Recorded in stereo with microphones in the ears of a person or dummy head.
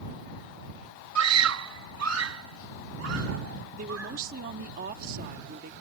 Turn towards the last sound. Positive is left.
turn(degrees=-50)  # may be behind; listen again after turning